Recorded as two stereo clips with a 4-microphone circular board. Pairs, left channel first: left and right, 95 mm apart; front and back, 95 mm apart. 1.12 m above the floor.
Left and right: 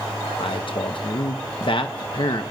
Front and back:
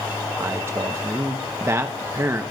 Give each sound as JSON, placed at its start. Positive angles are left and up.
{"t": 0.4, "sound": "a man speaking", "azimuth_deg": 120, "distance_m": 0.8}